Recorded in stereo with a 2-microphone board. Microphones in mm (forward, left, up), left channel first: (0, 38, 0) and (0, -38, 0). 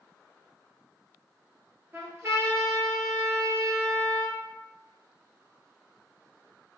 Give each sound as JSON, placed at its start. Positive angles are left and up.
{"t": 1.9, "sound": "a trumpet", "side_deg": -35, "distance_m": 1.2}